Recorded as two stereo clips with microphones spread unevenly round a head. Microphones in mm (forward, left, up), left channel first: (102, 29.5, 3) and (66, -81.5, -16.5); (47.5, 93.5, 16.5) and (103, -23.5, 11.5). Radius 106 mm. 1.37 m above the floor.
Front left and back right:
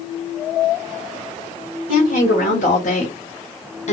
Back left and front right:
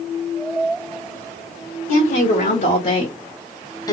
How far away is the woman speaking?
About 1.5 m.